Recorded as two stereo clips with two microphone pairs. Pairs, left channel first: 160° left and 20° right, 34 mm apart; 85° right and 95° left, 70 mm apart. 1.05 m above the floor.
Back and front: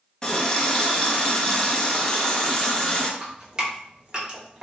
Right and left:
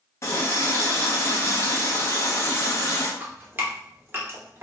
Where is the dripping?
40° left, 0.9 m.